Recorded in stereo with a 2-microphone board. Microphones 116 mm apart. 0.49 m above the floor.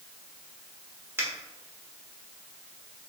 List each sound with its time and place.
1.2 s a finger snap: 20° right (ahead or behind), 1.3 m